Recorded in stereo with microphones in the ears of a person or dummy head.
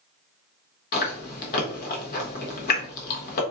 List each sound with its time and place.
0.9 s chewing: 45° left (ahead or behind), 0.9 m